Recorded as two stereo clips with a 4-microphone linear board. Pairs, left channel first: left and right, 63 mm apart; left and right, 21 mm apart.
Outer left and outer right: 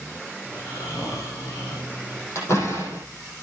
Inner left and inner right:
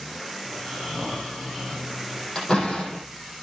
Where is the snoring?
65° left (ahead or behind), 5 m.